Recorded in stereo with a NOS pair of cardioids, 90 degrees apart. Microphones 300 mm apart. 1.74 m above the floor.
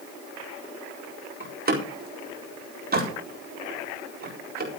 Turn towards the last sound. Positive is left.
turn(degrees=-35)